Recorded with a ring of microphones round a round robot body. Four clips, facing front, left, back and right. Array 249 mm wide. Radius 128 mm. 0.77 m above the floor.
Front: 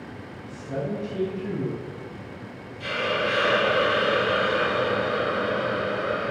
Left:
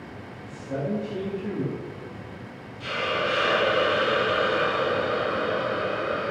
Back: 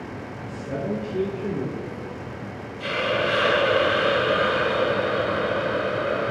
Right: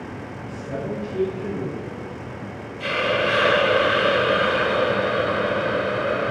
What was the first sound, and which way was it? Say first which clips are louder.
A man speaking: even, back 1 dB; 150° right.